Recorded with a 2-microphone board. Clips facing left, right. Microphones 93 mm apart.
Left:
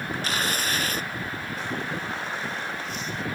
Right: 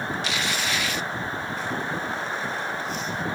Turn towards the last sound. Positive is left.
turn(degrees=45)  # may be behind; listen again after turning